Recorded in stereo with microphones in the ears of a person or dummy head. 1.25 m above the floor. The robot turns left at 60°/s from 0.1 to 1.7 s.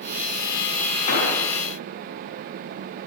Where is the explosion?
45° left (ahead or behind), 5 m; by 1.4 s 65° left (ahead or behind), 5 m.